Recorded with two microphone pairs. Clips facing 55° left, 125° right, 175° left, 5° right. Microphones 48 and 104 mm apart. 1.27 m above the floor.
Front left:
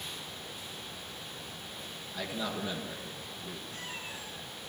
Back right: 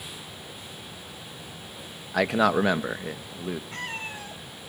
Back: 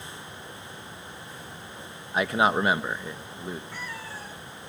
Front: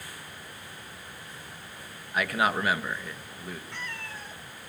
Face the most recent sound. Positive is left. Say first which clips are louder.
# back right 7 dB, back 2 dB
turn(degrees=-105)